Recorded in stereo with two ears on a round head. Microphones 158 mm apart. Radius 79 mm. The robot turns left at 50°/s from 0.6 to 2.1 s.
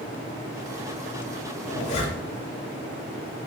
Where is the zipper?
50° left (ahead or behind), 0.5 m; by 2.4 s 30° left (ahead or behind), 0.5 m.